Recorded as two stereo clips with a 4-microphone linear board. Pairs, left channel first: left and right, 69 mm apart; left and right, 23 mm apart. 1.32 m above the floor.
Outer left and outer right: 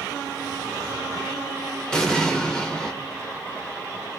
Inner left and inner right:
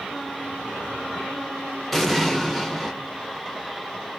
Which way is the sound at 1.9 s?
10° left (ahead or behind).